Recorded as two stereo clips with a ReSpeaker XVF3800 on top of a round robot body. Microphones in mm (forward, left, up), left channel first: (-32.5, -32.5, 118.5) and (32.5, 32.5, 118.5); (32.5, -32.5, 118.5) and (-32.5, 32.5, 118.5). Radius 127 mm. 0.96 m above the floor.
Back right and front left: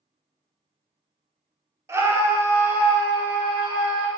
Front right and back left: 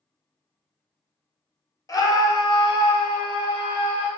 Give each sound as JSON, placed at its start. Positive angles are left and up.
{"t": 1.9, "sound": "a scream", "azimuth_deg": -5, "distance_m": 1.0}